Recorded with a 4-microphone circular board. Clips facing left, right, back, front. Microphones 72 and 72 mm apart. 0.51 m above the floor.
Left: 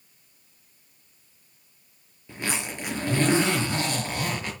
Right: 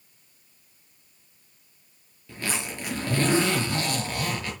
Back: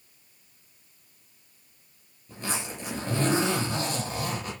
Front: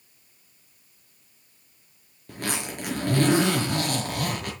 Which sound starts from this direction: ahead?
A zipper, at 2.3 s.